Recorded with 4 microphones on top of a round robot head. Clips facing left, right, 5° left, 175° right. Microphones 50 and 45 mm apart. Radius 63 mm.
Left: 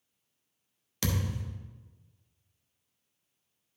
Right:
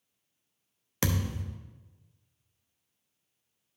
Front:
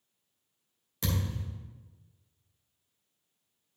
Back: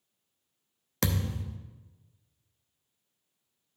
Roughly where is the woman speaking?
I don't hear a woman speaking.